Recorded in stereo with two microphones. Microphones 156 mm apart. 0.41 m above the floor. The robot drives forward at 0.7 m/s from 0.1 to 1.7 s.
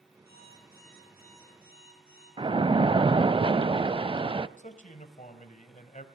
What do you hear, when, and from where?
0.3 s an alarm clock: 70° right (ahead or behind), 10 m; by 2.3 s 65° right (ahead or behind), 10.5 m
2.4 s a splash: 35° right (ahead or behind), 0.5 m
4.6 s a man speaking: 50° left (ahead or behind), 2.5 m